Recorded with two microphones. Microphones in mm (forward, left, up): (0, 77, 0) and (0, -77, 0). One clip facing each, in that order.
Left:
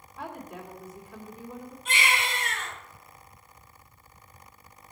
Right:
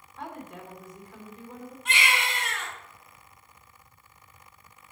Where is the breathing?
I don't hear breathing.